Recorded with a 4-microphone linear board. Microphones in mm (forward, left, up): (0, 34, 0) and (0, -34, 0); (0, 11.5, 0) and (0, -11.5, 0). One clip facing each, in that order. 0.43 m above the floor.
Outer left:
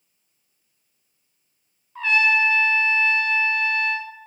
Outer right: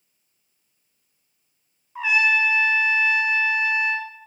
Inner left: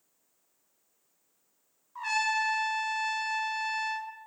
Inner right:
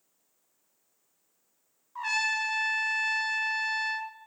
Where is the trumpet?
15° right (ahead or behind), 1.4 m.